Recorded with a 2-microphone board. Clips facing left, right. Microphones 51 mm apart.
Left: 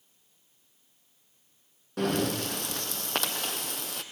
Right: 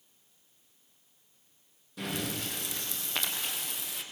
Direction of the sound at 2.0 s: 65° left (ahead or behind).